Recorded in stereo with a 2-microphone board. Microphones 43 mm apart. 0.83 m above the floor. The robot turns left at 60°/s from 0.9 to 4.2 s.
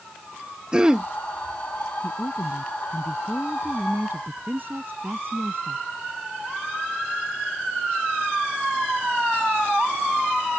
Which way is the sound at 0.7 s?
20° right (ahead or behind).